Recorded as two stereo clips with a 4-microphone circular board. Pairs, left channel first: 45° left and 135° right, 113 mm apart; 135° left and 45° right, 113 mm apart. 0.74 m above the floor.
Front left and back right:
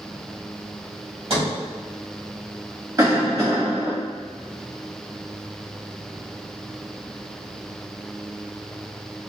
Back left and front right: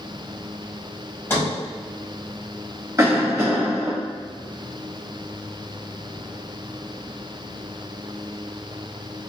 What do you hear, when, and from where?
1.3 s a sliding door: 155° right, 1.1 m
3.0 s a cough: 95° right, 1.1 m